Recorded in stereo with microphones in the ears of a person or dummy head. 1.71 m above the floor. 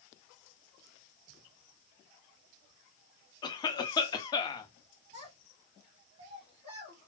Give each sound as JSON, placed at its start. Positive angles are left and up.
{"t": 3.4, "sound": "a cough", "side_deg": 20, "distance_m": 0.5}
{"t": 5.1, "sound": "a child speaking", "side_deg": -30, "distance_m": 1.8}